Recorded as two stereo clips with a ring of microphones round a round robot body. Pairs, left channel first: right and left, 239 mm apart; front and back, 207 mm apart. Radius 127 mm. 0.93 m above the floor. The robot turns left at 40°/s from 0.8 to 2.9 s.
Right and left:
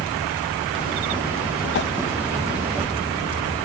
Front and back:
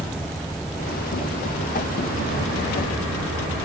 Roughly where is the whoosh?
Ahead right.